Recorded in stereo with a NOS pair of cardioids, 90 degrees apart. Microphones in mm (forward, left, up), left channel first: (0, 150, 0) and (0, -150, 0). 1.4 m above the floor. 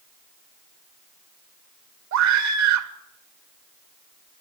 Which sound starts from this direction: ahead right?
A scream, at 2.1 s.